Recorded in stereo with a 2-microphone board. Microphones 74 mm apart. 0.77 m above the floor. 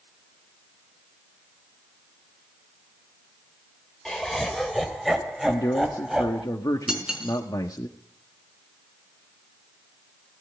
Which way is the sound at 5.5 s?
60° left (ahead or behind).